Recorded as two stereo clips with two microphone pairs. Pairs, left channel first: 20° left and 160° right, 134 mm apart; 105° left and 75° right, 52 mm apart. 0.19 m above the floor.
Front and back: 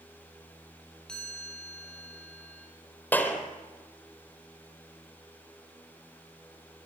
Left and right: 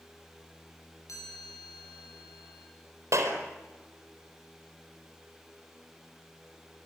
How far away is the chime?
About 7 m.